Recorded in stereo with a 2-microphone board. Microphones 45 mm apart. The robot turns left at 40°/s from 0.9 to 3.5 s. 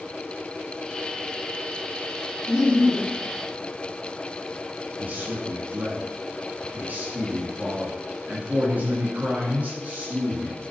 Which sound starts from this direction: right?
A man speaking, at 5.0 s.